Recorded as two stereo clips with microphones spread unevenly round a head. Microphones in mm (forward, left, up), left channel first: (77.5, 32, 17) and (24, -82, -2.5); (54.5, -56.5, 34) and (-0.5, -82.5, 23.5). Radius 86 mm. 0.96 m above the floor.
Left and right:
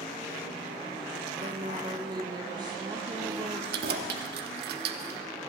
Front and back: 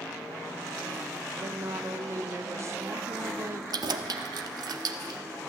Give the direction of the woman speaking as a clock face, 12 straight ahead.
5 o'clock.